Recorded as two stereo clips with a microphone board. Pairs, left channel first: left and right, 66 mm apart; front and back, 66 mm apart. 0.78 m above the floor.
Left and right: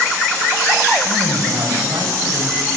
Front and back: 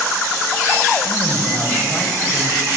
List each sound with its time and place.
1.0 s a man speaking: 60° right, 4.5 m